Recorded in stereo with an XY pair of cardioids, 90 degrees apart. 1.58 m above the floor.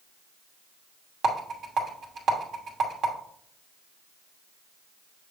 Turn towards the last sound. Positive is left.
turn(degrees=-65)